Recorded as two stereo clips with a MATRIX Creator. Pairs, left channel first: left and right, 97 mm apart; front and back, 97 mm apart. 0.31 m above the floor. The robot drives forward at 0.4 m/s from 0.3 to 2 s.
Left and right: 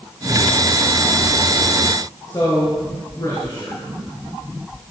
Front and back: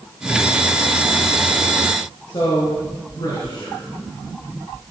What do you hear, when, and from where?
2.3 s a man speaking: 45° left, 4 m